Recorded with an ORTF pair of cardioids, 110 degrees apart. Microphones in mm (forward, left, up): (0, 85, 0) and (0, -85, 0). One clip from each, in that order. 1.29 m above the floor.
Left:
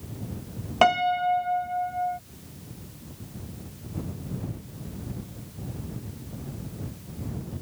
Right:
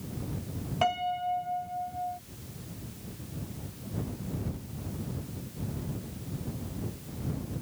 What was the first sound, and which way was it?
A piano, 55° left.